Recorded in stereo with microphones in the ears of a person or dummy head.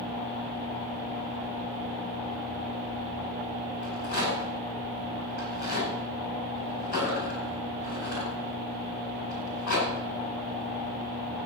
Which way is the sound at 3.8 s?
45° left (ahead or behind).